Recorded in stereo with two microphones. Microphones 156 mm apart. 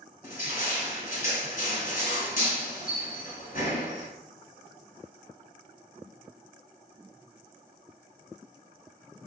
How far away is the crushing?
About 1.1 m.